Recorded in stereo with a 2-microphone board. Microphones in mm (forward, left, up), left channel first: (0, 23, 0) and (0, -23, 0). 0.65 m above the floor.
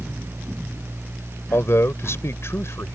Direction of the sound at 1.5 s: 75° left (ahead or behind).